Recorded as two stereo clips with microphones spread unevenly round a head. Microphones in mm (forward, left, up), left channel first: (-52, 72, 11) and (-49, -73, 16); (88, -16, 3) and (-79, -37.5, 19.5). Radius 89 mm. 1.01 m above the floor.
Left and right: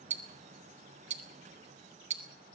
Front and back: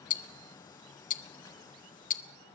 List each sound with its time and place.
0.1 s ticking: 35° right, 1.4 m